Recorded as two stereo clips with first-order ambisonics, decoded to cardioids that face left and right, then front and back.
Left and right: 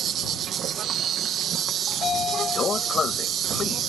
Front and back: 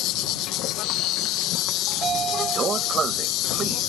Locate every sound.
0.0 s an insect: 35° right
1.9 s a sliding door: 135° left